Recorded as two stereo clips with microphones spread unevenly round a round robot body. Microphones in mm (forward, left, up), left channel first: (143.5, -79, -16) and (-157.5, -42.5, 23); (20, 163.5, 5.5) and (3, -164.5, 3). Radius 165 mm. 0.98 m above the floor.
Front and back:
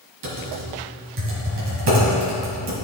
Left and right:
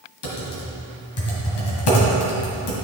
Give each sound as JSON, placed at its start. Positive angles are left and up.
{"t": 0.2, "sound": "typing on a keyboard", "azimuth_deg": 125, "distance_m": 2.0}